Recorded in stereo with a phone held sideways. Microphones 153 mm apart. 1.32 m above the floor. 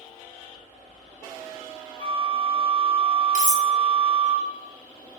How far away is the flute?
About 2 m.